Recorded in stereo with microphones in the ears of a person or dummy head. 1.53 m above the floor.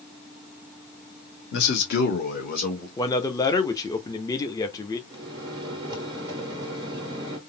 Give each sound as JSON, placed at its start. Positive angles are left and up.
{"t": 1.5, "sound": "a man speaking", "side_deg": 60, "distance_m": 1.1}
{"t": 3.0, "sound": "a man speaking", "side_deg": 15, "distance_m": 0.6}
{"t": 5.1, "sound": "a microwave", "side_deg": -20, "distance_m": 1.2}